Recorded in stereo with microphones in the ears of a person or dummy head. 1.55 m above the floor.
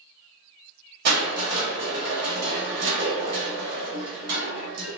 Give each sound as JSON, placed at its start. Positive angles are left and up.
{"t": 1.1, "sound": "crushing", "side_deg": -65, "distance_m": 1.4}